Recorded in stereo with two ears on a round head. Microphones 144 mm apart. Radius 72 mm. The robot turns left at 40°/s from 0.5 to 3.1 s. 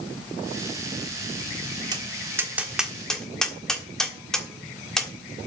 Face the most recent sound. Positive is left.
turn(degrees=5)  # may be behind; listen again after turning